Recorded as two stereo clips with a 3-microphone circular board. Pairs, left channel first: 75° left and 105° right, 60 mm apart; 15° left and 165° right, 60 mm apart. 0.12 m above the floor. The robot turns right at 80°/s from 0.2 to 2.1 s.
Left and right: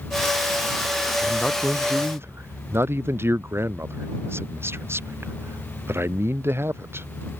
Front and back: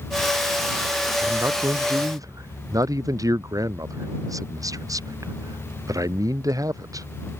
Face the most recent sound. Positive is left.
turn(degrees=-155)